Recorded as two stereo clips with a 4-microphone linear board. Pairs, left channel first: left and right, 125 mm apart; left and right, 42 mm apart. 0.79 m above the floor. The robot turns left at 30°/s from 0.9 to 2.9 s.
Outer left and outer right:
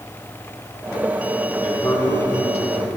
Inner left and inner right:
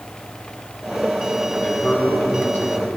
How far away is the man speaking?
About 4.5 m.